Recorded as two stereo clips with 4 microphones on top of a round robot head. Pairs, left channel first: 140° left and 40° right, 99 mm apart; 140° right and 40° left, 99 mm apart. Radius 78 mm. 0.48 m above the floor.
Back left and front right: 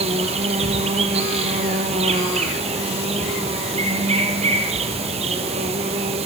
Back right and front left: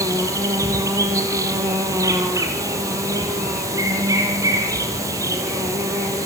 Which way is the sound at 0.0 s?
20° right.